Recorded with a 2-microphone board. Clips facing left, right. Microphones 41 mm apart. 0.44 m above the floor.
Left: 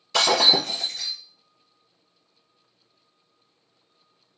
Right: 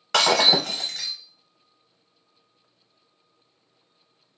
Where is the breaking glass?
85° right, 0.9 m.